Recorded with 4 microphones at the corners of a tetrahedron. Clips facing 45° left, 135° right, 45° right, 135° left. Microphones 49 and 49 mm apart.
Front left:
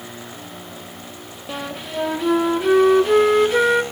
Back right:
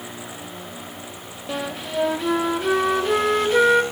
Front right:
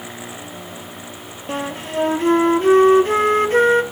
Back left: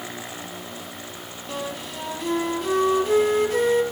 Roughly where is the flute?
Ahead right.